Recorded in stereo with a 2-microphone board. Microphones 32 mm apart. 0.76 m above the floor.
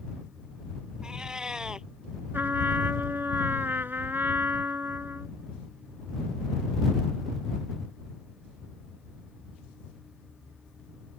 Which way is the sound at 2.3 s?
70° right (ahead or behind).